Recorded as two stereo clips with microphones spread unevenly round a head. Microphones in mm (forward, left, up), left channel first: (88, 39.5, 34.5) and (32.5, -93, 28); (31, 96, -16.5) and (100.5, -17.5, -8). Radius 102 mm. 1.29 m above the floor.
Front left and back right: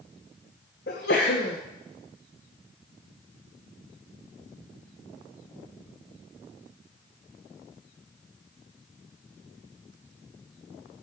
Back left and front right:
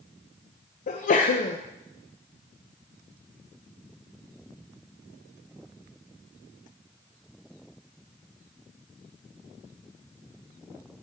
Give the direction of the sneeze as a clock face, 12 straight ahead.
8 o'clock.